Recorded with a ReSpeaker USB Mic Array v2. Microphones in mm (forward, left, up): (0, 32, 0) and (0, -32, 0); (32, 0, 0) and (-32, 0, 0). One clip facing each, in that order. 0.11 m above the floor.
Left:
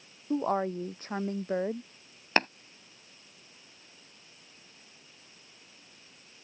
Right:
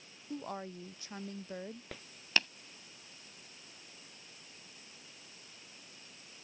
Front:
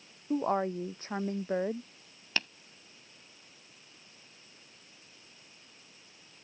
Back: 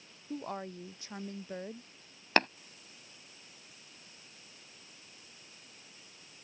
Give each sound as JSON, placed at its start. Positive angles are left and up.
{"t": 0.3, "sound": "a woman speaking", "azimuth_deg": 50}
{"t": 2.4, "sound": "tapping", "azimuth_deg": 140}